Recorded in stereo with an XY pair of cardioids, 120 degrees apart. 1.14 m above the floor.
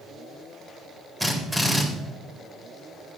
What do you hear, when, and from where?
1.2 s a drill: straight ahead, 4 m